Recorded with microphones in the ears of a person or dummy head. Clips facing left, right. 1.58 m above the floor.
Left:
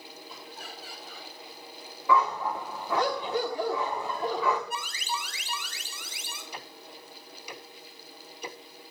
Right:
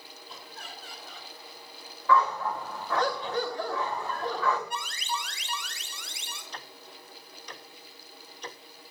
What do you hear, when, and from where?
0.3 s laughter: 5° left (ahead or behind), 4 m
2.1 s a dog barking: 15° left (ahead or behind), 1.3 m
4.7 s an alarm: 10° left (ahead or behind), 1.6 m
6.5 s ticking: 10° left (ahead or behind), 0.5 m